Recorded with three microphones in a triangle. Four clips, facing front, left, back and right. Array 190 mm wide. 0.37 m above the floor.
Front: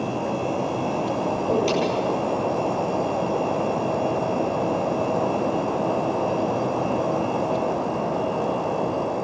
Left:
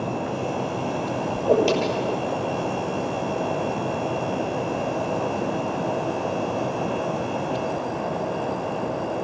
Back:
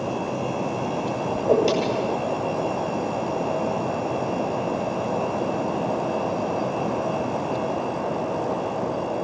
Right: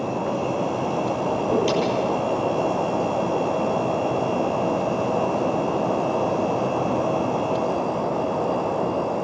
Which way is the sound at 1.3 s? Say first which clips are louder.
Left 4 dB, back 5 dB; 125° left.